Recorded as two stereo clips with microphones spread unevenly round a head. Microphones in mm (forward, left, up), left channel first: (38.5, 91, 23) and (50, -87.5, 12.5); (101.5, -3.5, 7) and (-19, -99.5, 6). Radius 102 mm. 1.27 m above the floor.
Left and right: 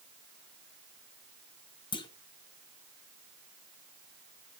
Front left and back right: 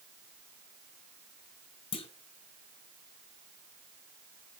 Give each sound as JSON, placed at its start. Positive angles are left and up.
{"t": 1.9, "sound": "a clunk", "azimuth_deg": 55, "distance_m": 0.9}